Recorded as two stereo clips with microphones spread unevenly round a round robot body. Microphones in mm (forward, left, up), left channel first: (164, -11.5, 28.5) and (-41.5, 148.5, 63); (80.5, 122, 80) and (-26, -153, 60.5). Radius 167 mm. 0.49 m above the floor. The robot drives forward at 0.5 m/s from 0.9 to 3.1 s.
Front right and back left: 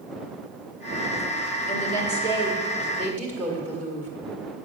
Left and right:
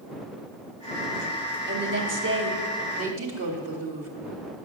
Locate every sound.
1.7 s a woman speaking: 80° right, 1.5 m; by 4.1 s 115° right, 1.6 m